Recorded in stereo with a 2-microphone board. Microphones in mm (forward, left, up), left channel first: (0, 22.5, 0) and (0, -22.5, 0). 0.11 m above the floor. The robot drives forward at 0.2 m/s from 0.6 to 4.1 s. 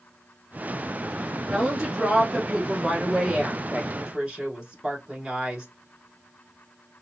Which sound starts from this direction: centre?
A woman speaking, at 1.5 s.